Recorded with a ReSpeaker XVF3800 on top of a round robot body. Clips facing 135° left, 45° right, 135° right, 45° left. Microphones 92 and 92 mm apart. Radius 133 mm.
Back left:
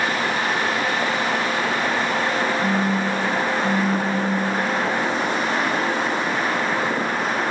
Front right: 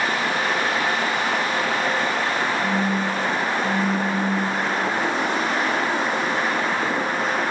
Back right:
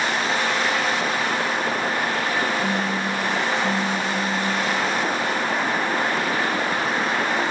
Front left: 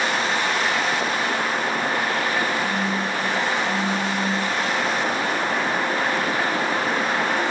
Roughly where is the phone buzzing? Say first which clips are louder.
Back left 1 dB, even; ahead left.